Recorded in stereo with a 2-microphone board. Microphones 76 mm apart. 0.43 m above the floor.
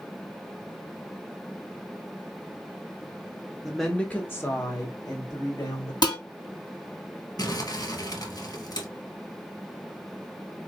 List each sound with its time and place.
3.6 s a woman speaking: 5° right (ahead or behind), 0.8 m; by 5.9 s 65° left (ahead or behind), 1.9 m
6.0 s dishes clattering: 65° left (ahead or behind), 2 m
7.4 s crumpling: 60° left (ahead or behind), 1.4 m